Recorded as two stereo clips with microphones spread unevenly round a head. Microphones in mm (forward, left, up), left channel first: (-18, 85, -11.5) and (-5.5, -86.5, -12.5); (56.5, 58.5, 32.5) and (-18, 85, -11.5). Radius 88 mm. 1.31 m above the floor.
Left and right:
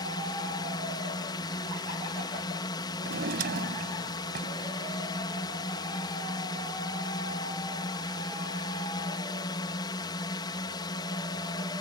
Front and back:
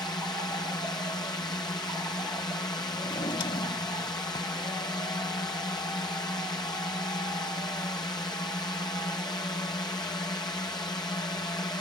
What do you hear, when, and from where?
0.0 s a drone: 30° left
3.0 s a drawer: 50° right